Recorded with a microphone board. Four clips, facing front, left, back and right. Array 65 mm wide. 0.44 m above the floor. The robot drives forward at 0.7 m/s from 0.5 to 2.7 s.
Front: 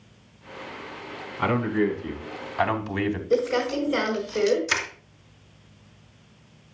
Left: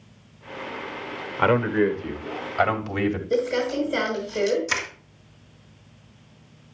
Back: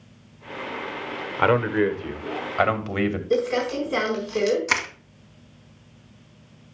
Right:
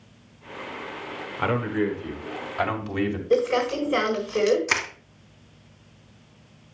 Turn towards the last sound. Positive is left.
turn(degrees=-145)